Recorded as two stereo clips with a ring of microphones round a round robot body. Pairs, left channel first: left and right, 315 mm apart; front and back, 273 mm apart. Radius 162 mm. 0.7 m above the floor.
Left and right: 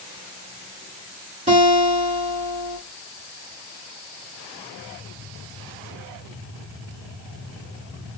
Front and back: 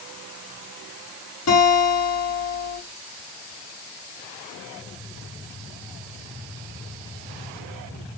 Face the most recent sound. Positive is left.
turn(degrees=-25)